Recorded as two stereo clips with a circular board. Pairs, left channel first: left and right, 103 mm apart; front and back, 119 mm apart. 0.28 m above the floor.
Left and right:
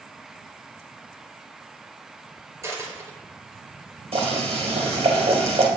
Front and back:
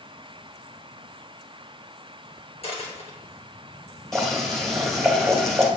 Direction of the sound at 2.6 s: 30° right.